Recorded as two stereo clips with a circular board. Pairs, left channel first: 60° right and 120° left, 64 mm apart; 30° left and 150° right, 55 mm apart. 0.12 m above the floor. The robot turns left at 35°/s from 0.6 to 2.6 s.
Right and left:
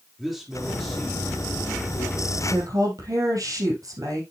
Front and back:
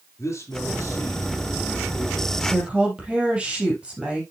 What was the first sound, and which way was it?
A man speaking, 30° left.